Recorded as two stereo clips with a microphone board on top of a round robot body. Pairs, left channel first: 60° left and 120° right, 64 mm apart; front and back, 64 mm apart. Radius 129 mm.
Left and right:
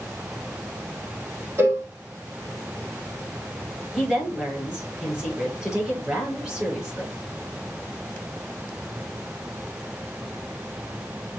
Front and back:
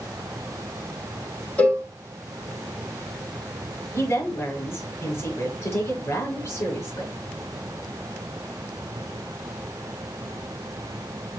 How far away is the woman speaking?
About 6.5 m.